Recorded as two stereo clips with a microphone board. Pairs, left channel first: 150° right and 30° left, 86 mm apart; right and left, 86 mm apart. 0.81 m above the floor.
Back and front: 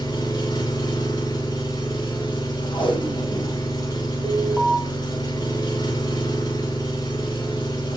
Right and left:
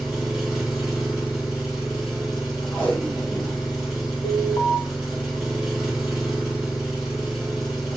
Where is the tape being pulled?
155° right, 3.5 m.